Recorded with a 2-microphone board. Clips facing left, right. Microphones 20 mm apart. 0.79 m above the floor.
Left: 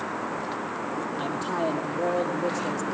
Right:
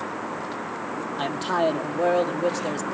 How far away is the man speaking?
About 1.7 m.